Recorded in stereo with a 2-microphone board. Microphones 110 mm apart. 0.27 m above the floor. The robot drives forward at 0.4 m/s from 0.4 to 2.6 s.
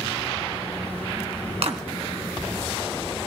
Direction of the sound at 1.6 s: 65° right (ahead or behind).